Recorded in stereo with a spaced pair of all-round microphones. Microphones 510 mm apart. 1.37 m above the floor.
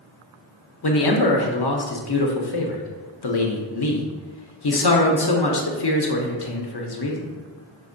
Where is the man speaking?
50° left (ahead or behind), 0.5 m.